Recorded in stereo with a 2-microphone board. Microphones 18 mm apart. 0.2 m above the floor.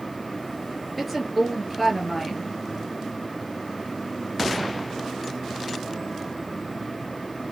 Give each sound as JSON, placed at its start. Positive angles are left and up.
{"t": 1.0, "sound": "a woman speaking", "side_deg": 0, "distance_m": 3.0}